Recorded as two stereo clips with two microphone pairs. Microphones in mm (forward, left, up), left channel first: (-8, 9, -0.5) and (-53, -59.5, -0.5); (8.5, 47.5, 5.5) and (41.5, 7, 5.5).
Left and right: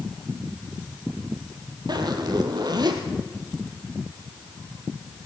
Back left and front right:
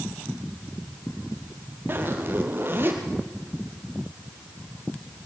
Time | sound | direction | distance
1.9 | a zipper | 95° right | 2.5 m